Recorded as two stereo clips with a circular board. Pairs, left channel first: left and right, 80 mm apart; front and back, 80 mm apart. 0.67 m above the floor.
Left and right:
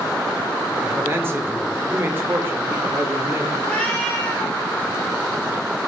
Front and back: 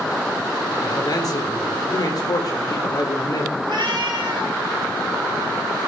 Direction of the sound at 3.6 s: 165° left.